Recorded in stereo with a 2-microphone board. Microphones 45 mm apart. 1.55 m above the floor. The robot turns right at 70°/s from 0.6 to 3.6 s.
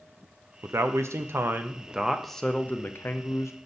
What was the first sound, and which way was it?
A man speaking, 110° right.